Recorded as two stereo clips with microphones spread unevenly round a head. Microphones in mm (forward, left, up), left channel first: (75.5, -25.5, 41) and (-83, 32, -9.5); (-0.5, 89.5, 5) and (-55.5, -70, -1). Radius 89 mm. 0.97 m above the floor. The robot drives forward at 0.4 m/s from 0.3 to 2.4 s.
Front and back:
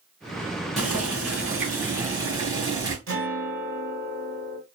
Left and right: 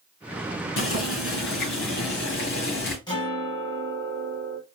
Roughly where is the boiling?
Ahead left.